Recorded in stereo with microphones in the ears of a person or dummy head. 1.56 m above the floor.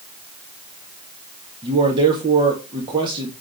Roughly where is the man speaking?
Right.